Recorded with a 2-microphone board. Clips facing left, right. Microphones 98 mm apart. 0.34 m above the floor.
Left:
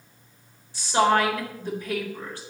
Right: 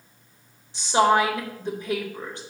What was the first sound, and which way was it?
A woman speaking, 20° right (ahead or behind).